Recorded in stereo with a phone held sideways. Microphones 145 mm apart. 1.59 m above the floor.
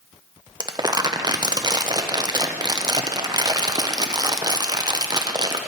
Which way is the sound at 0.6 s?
30° right (ahead or behind).